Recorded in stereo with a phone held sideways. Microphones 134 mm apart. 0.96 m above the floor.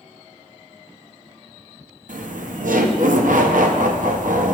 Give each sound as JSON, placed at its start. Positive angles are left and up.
{"t": 2.1, "sound": "laughter", "side_deg": -75, "distance_m": 0.7}